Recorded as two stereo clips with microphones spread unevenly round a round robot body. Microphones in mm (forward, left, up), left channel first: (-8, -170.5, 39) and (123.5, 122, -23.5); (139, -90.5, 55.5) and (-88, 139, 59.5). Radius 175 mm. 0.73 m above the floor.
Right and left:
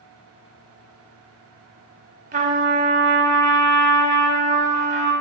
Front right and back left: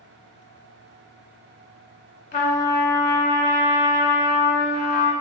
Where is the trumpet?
Straight ahead, 0.6 m.